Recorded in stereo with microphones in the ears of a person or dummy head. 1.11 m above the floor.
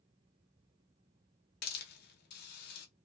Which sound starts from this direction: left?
A hiss, at 1.6 s.